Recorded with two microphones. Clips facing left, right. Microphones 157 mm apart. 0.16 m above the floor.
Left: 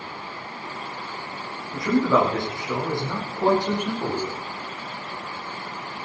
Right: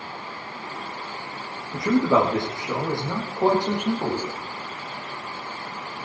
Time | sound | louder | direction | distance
1.7 | a man speaking | right 1 dB | 25° right (ahead or behind) | 7 m